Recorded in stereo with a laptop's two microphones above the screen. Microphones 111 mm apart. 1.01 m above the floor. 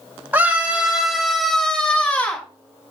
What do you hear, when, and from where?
0.3 s a scream: 15° right (ahead or behind), 5 m; by 2.5 s 15° left (ahead or behind), 5.5 m